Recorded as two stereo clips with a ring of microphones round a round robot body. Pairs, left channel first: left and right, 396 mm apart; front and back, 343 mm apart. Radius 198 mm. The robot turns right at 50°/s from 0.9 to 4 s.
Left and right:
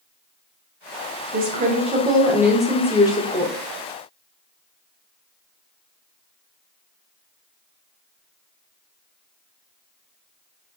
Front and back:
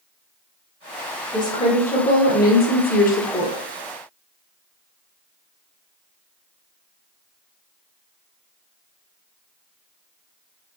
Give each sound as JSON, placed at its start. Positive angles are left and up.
{"t": 1.3, "sound": "a woman speaking", "azimuth_deg": -65, "distance_m": 0.7}